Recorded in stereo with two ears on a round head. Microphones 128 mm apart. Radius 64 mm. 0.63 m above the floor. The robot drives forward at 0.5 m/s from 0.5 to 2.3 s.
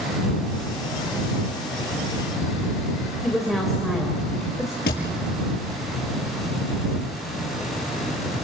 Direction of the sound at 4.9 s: 70° left (ahead or behind).